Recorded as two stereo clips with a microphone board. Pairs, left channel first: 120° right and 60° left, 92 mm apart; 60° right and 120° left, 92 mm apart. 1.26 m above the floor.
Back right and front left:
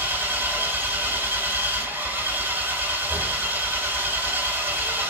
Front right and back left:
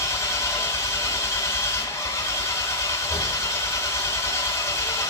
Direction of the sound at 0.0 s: 5° right.